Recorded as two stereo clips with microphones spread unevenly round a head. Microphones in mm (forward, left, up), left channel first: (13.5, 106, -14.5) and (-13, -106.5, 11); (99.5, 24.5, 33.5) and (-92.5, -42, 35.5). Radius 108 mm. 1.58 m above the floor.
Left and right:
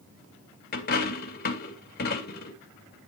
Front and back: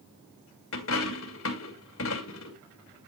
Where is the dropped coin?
35° left, 2 m.